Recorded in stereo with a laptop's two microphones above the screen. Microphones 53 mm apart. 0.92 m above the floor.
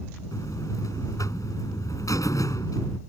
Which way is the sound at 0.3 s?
75° left (ahead or behind).